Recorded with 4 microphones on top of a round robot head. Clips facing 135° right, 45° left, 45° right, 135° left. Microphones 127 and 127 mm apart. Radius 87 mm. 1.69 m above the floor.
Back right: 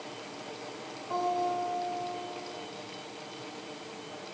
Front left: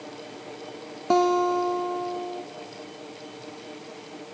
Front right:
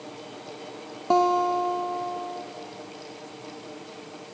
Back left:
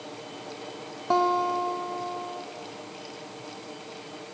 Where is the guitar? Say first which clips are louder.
Front left 9 dB, front right 3 dB; 30° left, 0.7 m.